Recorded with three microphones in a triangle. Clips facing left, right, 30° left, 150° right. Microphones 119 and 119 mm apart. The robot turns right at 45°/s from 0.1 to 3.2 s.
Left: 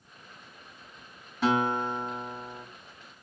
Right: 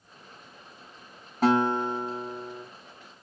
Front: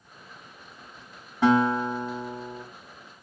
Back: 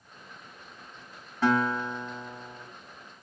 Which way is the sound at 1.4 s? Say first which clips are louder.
Right 3 dB, front 5 dB; 45° right.